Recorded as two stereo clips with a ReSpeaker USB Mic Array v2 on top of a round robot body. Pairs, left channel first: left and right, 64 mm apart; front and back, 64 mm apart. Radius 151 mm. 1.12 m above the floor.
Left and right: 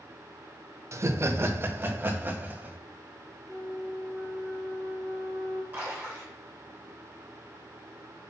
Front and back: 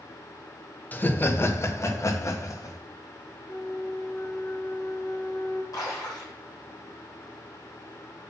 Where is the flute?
5° right, 3.5 m.